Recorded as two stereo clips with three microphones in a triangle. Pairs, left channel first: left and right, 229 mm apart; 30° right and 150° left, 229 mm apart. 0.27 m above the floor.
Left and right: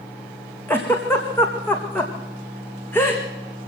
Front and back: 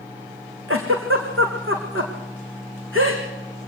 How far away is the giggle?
About 3.5 m.